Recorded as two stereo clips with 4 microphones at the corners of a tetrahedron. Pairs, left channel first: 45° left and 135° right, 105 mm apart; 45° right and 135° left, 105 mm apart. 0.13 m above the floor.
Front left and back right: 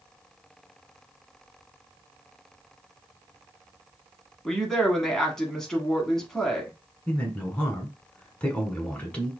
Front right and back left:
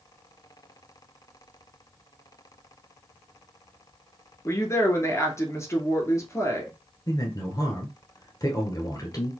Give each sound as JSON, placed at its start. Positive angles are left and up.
{"t": 4.5, "sound": "a woman speaking", "azimuth_deg": -35, "distance_m": 1.2}
{"t": 7.1, "sound": "a man speaking", "azimuth_deg": -25, "distance_m": 1.3}